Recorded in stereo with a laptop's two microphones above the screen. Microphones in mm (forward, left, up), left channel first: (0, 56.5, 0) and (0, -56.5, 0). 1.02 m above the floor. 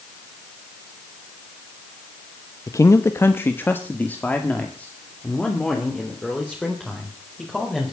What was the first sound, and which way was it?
A man speaking, 30° left (ahead or behind).